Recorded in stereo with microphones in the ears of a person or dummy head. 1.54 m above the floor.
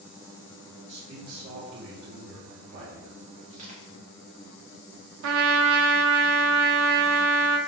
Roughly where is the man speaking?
Right.